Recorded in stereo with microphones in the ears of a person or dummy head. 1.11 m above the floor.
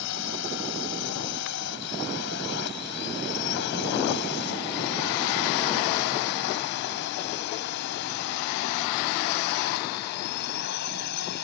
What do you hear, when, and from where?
0.0 s a drone: 75° left (ahead or behind); by 11.4 s 70° left (ahead or behind)